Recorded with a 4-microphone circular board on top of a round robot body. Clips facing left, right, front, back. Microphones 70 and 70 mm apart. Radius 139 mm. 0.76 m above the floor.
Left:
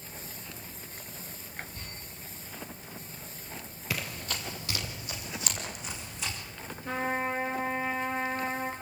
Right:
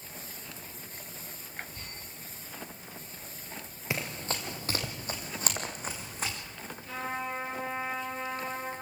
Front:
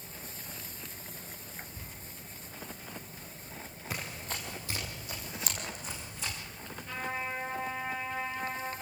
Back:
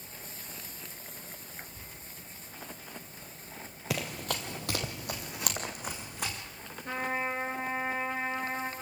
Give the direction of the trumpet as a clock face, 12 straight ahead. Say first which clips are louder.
Left 5 dB, back 4 dB; 7 o'clock.